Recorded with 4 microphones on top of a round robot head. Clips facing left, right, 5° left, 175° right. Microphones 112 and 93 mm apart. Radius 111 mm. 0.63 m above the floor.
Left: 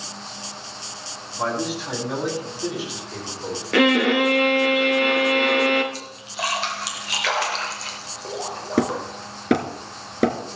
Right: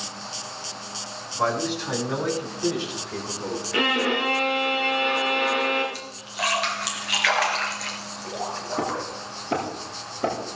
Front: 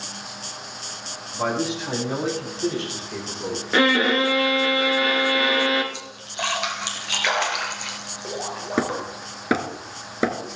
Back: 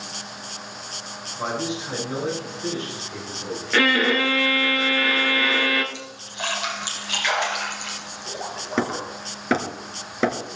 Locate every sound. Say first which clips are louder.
1.3 s a man speaking: right 1 dB, front 3 dB; 5° left, 5 m; by 3.6 s 10° left, 7.5 m
3.7 s a violin: left 8 dB, front 1 dB; 70° left, 2.5 m
5.9 s a splash: left 1 dB, front 2 dB; 30° left, 3 m
8.8 s hammering: left 8 dB, even; 85° left, 2.5 m